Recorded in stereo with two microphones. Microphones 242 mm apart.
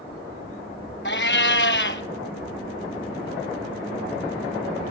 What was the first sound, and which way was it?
A cat meowing, 50° left (ahead or behind).